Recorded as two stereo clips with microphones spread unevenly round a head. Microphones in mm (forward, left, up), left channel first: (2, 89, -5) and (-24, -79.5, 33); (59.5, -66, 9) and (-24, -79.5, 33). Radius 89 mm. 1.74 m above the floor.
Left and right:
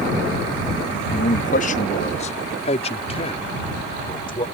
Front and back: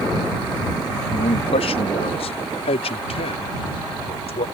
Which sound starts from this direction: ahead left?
A man speaking, at 1.1 s.